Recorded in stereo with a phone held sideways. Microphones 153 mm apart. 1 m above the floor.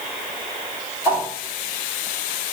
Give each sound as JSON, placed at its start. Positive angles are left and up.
{"t": 1.1, "sound": "a whoosh", "side_deg": -15, "distance_m": 2.0}